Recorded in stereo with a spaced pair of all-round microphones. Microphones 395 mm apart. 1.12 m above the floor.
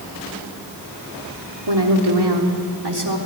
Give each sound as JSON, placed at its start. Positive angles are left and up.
{"t": 1.7, "sound": "a woman speaking", "side_deg": -85, "distance_m": 3.0}